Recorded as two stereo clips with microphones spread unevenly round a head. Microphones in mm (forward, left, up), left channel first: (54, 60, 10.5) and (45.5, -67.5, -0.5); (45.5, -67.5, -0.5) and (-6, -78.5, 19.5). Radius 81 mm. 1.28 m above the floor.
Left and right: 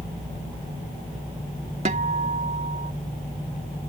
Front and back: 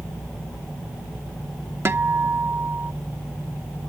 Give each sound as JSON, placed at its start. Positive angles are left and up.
{"t": 1.9, "sound": "a guitar", "azimuth_deg": -150}